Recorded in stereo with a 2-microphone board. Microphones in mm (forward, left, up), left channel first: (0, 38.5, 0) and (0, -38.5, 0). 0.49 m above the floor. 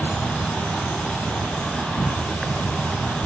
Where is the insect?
Centre (ahead or behind), 1.2 m.